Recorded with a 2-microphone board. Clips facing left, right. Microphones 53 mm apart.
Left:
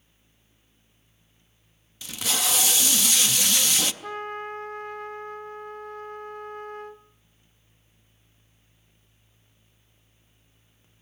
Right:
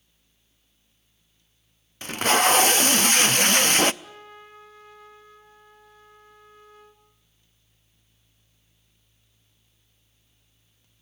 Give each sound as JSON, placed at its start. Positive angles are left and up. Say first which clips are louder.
{"t": 2.0, "sound": "tape being pulled", "louder": "right 10 dB", "side_deg": -50, "distance_m": 0.6}
{"t": 4.0, "sound": "a trumpet", "louder": "left 12 dB", "side_deg": 55, "distance_m": 0.8}